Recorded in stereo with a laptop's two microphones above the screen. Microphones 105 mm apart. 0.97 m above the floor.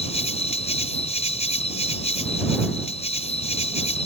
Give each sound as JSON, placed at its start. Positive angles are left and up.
{"t": 0.0, "sound": "an insect", "side_deg": 85}